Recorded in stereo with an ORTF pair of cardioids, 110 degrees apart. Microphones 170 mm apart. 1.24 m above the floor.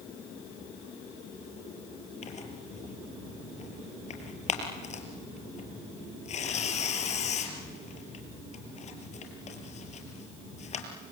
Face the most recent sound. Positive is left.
turn(degrees=45)